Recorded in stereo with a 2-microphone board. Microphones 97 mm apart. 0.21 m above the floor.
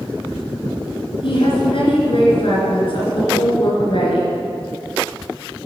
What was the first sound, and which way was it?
A woman speaking, 65° left (ahead or behind).